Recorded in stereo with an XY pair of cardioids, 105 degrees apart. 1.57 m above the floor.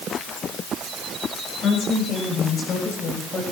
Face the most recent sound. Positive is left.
turn(degrees=45)